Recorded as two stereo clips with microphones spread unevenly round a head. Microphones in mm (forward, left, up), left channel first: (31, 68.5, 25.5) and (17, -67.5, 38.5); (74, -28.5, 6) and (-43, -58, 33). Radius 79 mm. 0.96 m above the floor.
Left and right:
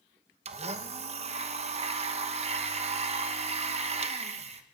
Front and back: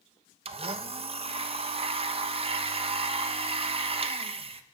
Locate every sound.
0.5 s a blender: 130° right, 1.1 m